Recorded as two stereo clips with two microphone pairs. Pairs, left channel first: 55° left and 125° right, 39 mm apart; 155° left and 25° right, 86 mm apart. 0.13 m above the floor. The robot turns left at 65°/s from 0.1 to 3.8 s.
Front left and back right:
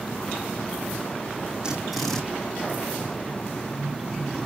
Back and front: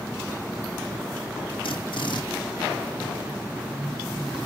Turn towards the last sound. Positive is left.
turn(degrees=20)